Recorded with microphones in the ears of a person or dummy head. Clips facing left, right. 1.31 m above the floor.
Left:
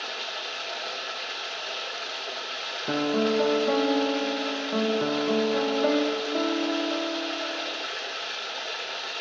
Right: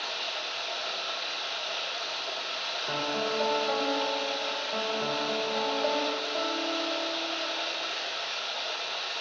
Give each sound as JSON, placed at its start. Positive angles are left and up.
{"t": 0.0, "sound": "running water", "side_deg": 30, "distance_m": 1.2}
{"t": 2.9, "sound": "a piano", "side_deg": 40, "distance_m": 0.7}